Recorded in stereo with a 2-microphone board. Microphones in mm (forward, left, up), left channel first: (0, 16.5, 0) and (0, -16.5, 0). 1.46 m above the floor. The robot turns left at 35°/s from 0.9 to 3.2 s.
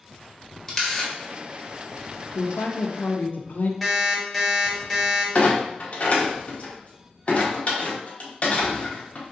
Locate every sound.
0.7 s a camera shutter: 10° left (ahead or behind), 0.9 m; by 1.1 s 5° left (ahead or behind), 0.9 m
2.4 s a woman speaking: 65° left (ahead or behind), 0.5 m; by 3.7 s 60° left (ahead or behind), 0.5 m
3.8 s an alarm clock: 5° left (ahead or behind), 0.9 m
5.3 s a clunk: 45° left (ahead or behind), 0.8 m